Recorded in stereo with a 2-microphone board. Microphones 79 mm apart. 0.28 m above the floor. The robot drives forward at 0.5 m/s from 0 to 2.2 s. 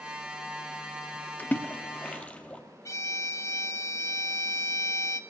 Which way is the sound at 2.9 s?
40° left (ahead or behind).